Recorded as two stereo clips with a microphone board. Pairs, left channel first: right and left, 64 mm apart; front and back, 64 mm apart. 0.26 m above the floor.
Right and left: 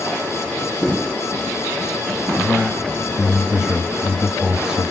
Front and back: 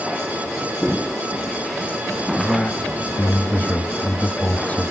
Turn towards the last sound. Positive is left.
turn(degrees=25)